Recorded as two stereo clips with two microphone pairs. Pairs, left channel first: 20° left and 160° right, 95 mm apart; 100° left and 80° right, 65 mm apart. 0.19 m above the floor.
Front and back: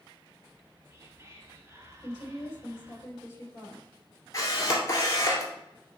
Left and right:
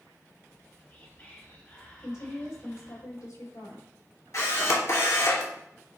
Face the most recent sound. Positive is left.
turn(degrees=75)